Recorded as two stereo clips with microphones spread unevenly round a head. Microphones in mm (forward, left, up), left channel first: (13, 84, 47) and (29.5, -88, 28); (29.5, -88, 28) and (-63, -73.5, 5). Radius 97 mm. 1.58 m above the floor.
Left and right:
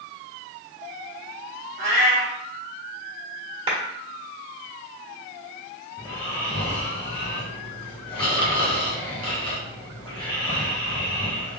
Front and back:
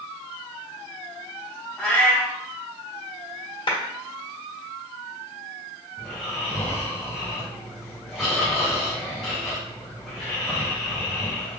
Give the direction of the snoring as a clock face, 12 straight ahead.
10 o'clock.